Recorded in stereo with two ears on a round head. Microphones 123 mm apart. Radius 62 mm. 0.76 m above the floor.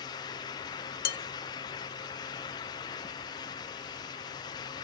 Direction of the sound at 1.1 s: 80° left.